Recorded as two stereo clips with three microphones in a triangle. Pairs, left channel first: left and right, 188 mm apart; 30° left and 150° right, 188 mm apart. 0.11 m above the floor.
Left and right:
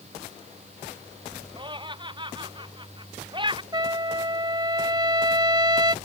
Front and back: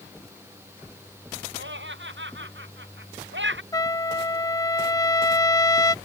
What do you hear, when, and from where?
1.6 s laughter: 155° right
3.7 s a trumpet: 35° right